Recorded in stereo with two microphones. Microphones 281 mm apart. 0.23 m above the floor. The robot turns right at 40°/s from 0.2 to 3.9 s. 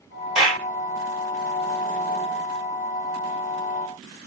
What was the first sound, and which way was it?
A clap, 5° right (ahead or behind).